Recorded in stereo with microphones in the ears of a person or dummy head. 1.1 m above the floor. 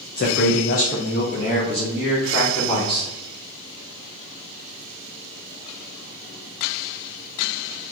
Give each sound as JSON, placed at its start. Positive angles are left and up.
{"t": 0.2, "sound": "a man speaking", "side_deg": 50, "distance_m": 0.9}